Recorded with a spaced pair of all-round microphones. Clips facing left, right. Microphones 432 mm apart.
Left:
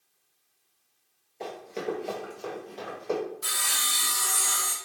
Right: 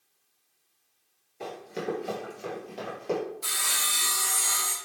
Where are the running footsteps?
20° right (ahead or behind), 1.4 m; by 3.2 s 45° right (ahead or behind), 2.0 m.